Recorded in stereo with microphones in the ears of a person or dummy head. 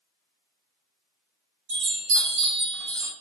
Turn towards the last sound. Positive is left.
turn(degrees=-70)  # may be behind; listen again after turning